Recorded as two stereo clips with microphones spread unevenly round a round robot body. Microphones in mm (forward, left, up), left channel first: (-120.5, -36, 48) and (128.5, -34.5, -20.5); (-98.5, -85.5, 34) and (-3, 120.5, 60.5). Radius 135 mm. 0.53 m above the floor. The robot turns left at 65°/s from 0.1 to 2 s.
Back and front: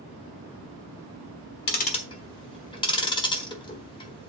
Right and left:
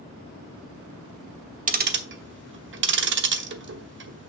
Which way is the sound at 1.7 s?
120° left.